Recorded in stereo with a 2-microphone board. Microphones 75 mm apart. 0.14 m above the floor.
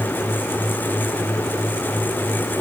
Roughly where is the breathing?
No breathing in this recording.